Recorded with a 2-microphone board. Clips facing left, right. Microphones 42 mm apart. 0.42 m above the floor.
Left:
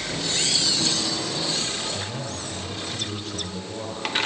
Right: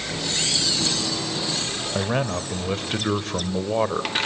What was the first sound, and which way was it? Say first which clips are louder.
A man speaking: right 8 dB; 55° right (ahead or behind).